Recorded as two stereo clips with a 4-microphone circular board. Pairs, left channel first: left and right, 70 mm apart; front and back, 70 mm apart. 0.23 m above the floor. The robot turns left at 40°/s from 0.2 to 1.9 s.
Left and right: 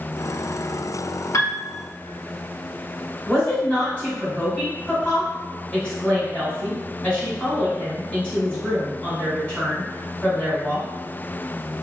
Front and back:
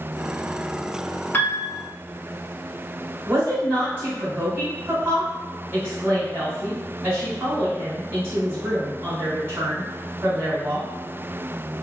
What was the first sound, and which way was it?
A piano, 60° left.